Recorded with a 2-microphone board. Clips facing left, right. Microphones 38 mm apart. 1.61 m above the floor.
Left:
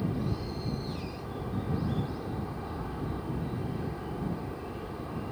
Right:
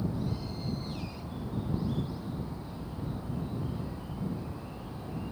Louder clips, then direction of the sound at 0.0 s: Left 2 dB; 70° left (ahead or behind).